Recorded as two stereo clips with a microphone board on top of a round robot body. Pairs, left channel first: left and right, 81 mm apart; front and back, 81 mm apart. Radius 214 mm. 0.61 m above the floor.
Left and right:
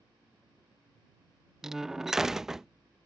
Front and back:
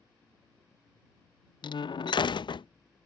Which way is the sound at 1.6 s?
5° right.